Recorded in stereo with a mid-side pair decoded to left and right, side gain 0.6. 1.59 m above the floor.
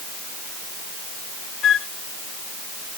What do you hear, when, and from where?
1.6 s a flute: 40° left